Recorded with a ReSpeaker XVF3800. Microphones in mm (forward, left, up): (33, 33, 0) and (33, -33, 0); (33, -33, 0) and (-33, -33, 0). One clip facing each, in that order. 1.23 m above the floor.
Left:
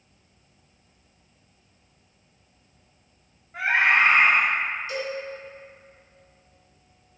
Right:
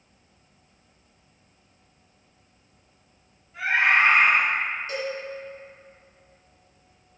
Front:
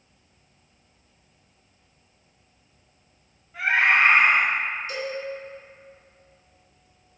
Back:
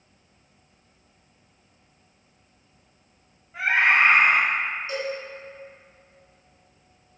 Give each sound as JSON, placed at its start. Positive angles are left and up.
{"t": 3.5, "sound": "a scream", "azimuth_deg": 120, "distance_m": 0.7}
{"t": 4.9, "sound": "a cowbell", "azimuth_deg": -125, "distance_m": 1.6}